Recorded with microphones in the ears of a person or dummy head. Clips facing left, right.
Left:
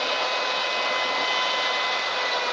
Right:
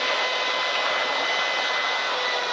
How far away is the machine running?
About 9 m.